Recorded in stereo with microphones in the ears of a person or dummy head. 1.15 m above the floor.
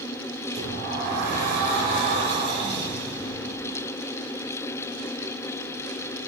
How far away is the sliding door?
About 7 m.